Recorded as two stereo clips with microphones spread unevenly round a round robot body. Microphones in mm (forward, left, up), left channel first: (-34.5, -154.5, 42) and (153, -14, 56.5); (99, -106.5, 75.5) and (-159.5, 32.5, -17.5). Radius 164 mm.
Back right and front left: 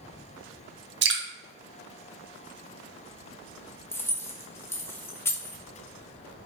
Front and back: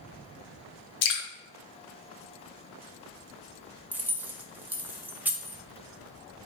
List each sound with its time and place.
1.0 s dripping: straight ahead, 0.9 m
3.9 s keys jangling: 160° left, 0.5 m